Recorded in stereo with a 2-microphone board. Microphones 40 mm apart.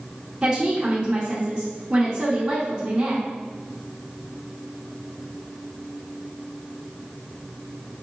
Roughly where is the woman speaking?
Right.